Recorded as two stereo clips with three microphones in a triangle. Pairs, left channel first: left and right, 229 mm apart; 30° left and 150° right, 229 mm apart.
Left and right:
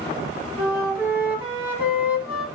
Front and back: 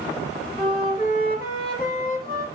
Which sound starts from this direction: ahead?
A flute, at 0.6 s.